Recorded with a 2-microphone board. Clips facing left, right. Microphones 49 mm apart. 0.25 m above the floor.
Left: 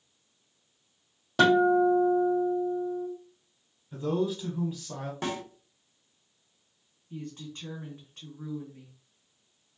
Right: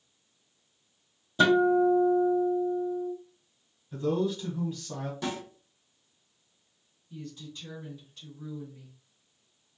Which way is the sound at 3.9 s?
10° left (ahead or behind).